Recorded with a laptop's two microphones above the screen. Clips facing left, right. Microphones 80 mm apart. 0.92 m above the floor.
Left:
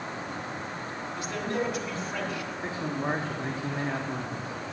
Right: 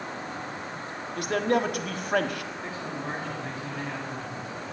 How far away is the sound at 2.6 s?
About 1.5 m.